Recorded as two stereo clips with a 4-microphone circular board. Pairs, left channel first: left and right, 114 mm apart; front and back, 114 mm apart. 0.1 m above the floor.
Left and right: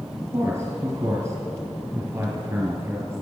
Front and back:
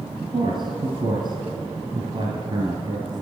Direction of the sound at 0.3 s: 150° right.